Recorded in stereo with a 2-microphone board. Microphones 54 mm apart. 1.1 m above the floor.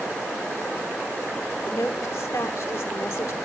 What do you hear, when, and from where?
1.6 s a woman speaking: 70° left (ahead or behind), 3.5 m